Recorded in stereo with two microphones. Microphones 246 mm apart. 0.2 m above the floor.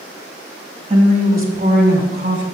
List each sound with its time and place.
0.9 s a woman speaking: 25° right (ahead or behind), 1.1 m; by 2.5 s 50° right (ahead or behind), 1.8 m